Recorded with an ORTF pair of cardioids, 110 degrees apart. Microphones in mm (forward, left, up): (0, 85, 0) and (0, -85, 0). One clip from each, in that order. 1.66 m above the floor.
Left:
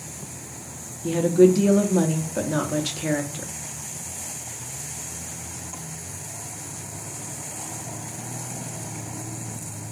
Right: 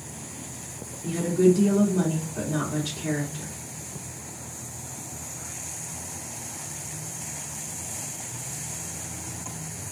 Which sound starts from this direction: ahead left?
A woman speaking, at 1.0 s.